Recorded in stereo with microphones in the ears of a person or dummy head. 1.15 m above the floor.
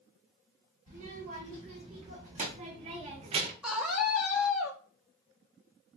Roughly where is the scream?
Centre.